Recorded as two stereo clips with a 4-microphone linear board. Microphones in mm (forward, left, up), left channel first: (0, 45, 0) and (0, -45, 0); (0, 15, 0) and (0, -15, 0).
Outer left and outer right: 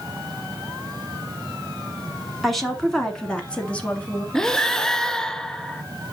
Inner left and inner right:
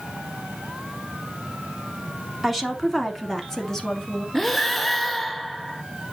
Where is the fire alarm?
I don't hear a fire alarm.